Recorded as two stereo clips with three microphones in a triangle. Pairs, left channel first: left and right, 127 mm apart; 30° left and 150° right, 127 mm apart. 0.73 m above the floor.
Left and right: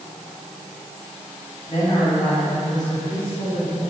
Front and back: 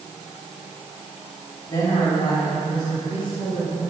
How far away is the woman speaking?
About 5 m.